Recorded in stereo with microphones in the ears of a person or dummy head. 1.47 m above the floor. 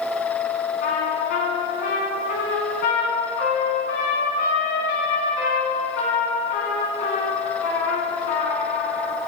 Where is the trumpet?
50° left (ahead or behind), 2.5 m.